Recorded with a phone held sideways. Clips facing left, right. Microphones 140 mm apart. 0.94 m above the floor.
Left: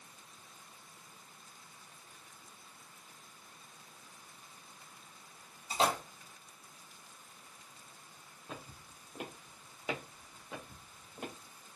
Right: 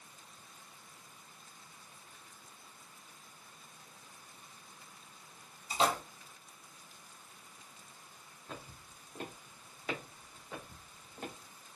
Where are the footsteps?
10° left (ahead or behind), 1.2 m; by 11.3 s 15° left (ahead or behind), 1.4 m.